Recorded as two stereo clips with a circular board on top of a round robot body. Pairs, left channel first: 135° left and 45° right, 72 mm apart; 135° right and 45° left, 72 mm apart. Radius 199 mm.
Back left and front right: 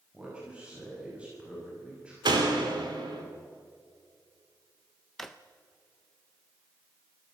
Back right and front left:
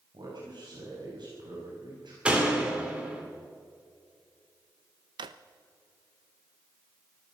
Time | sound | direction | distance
0.1 | a man speaking | 30° left | 6.5 m
2.2 | a door slam | 30° right | 3 m
5.2 | a drawer | 50° left | 0.6 m